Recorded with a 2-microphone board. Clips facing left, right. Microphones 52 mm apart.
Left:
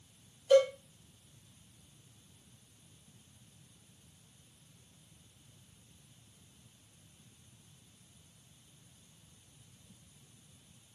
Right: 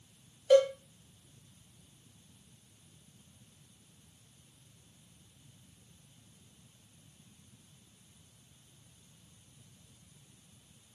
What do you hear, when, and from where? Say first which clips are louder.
0.5 s a cowbell: right 1 dB; 55° right (ahead or behind), 1.8 m